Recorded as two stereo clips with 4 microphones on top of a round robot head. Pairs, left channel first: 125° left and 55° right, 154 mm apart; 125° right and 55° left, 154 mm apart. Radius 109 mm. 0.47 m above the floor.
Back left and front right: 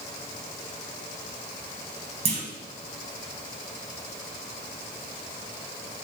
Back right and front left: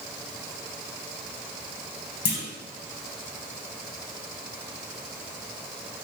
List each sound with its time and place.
2.2 s a clunk: 105° right, 0.8 m